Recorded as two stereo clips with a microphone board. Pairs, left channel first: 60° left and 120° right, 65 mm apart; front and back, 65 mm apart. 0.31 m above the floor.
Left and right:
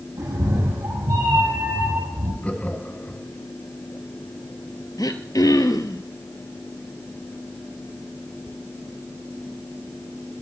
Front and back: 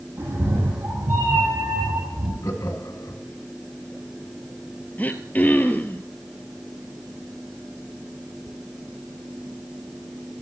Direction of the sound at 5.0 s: 60° left.